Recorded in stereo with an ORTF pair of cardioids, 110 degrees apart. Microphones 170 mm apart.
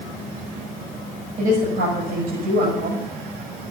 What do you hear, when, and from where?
1.4 s a woman speaking: 70° right, 7.5 m